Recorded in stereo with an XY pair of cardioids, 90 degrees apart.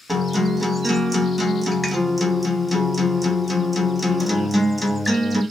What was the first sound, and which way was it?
A guitar, straight ahead.